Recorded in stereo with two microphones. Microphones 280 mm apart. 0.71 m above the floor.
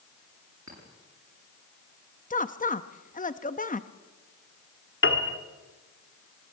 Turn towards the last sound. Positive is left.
turn(degrees=45)  # may be behind; listen again after turning